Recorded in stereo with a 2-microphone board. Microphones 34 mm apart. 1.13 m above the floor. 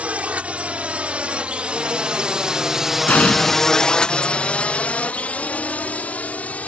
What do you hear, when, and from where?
0.0 s a drone: 40° right (ahead or behind); by 6.7 s 45° left (ahead or behind)
3.1 s an explosion: 45° left (ahead or behind)